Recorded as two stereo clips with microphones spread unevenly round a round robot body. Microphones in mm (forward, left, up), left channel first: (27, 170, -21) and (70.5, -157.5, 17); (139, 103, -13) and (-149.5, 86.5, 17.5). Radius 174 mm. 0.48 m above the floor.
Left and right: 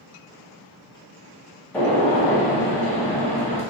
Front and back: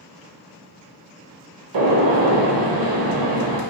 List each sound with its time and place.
1.7 s a gunshot: 175° right, 0.7 m